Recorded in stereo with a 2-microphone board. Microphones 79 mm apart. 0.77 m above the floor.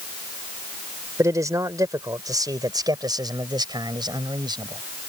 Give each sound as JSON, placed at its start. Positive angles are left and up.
{"t": 1.2, "sound": "a man speaking", "side_deg": -40}